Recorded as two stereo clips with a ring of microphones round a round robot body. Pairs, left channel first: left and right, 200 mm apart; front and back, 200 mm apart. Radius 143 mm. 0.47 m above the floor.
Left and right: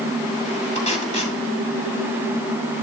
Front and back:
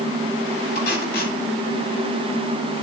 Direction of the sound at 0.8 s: 35° left.